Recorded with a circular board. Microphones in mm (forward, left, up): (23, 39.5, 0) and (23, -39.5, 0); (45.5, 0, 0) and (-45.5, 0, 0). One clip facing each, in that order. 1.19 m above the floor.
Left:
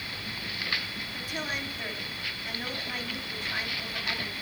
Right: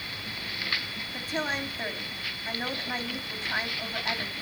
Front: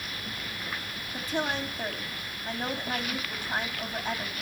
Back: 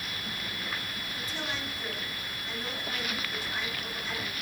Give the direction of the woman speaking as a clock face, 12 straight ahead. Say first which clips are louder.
Right 5 dB, front 8 dB; 1 o'clock.